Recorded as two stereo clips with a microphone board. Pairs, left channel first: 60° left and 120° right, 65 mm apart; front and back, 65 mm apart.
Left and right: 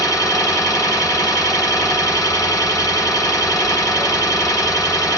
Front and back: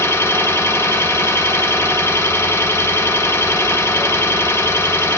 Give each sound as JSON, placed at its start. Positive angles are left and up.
{"t": 0.0, "sound": "an engine running", "azimuth_deg": 45, "distance_m": 1.5}